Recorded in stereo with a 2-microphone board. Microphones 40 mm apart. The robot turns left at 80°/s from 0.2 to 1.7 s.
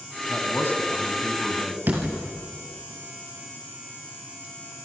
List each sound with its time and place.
0.3 s a man speaking: 95° left, 3.5 m; by 1.8 s 20° right, 3.5 m
1.9 s a door slam: 55° right (ahead or behind), 5.5 m